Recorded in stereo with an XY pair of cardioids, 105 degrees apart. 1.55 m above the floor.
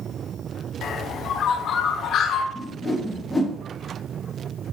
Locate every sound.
0.8 s a bird: 65° left, 0.9 m
2.5 s a whoosh: 20° left, 1.6 m